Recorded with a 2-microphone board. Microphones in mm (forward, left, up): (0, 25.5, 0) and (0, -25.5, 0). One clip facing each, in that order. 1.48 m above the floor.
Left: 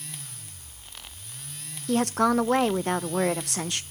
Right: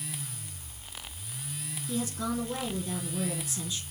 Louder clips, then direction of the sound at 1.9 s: Left 10 dB; 65° left (ahead or behind).